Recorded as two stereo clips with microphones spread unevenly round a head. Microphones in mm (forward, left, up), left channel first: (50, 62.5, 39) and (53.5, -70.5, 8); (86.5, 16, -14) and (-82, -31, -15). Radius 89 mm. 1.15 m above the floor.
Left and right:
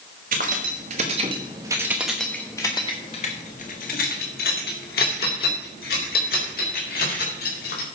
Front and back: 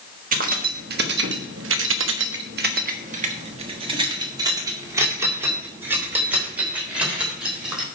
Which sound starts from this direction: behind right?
Keys jangling, at 0.3 s.